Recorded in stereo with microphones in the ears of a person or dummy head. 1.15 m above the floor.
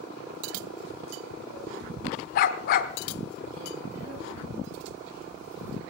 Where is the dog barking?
50° left (ahead or behind), 1.3 m.